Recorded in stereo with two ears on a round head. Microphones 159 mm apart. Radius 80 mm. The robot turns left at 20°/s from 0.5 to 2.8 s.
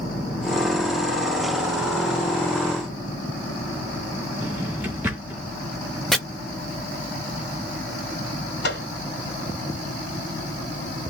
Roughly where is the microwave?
Left.